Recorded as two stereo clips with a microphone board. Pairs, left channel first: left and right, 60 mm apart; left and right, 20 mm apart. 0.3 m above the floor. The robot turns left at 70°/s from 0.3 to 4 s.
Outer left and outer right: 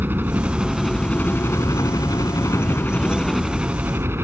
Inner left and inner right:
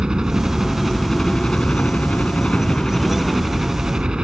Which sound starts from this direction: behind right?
A helicopter, at 0.0 s.